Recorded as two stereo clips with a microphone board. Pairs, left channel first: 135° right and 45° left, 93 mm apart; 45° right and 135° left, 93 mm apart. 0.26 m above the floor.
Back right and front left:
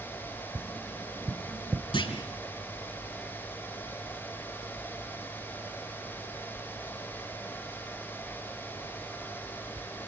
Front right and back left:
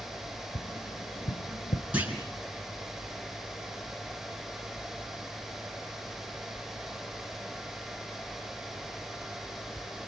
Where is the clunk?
150° right, 4 m.